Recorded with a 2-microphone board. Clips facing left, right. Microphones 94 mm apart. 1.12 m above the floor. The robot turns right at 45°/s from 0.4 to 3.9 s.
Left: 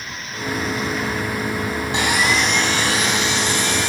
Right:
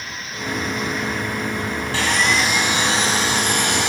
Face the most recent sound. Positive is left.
turn(degrees=-110)